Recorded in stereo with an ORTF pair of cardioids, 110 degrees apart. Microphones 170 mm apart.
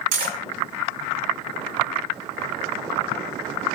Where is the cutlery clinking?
65° right, 1.5 m.